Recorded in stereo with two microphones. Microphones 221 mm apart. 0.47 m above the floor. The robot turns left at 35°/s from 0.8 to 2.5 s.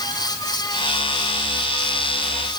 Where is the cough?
I don't hear a cough.